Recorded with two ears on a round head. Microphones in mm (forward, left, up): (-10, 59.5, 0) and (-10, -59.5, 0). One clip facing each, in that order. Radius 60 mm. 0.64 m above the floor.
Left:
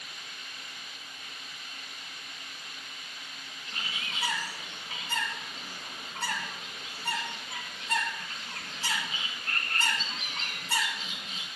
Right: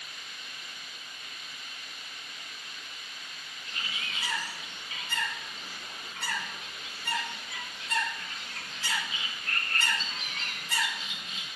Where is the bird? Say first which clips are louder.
Even; 30° left (ahead or behind), 2.5 m.